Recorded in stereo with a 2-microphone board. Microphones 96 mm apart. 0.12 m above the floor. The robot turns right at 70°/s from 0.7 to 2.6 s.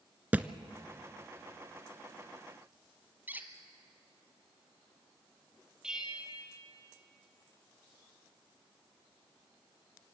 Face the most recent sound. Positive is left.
turn(degrees=-10)  # may be behind; listen again after turning